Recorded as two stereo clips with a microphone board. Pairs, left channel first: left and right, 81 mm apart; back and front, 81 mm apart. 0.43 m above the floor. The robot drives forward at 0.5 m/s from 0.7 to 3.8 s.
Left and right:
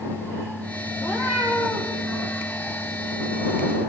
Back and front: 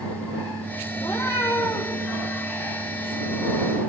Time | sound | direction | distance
1.0 | a cat meowing | 160° right | 5.5 m